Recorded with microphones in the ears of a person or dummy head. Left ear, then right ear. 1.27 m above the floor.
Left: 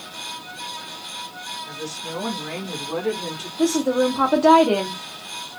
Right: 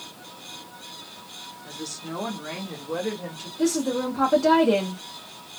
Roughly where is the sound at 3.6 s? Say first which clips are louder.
Left 5 dB; centre.